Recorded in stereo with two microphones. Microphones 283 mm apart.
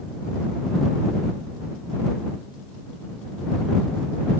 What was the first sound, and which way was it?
Only background noise.